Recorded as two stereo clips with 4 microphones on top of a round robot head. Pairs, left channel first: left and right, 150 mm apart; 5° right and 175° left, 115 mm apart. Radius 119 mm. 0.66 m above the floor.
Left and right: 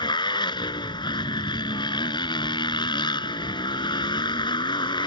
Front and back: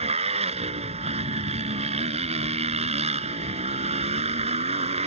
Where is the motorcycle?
150° left.